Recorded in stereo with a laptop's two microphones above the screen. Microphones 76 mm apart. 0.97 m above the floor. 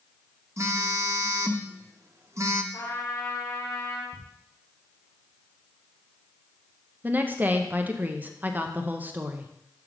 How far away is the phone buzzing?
About 0.6 m.